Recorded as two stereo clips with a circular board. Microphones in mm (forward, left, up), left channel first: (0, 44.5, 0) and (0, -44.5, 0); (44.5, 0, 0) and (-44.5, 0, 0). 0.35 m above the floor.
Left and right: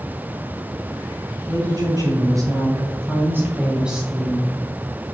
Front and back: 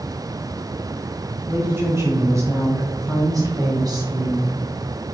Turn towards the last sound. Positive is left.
turn(degrees=170)